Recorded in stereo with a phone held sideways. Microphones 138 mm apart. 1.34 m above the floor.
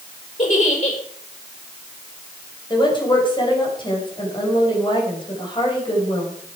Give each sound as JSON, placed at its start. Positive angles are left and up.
{"t": 0.4, "sound": "a giggle", "side_deg": 60, "distance_m": 4.5}
{"t": 2.7, "sound": "a woman speaking", "side_deg": 35, "distance_m": 5.5}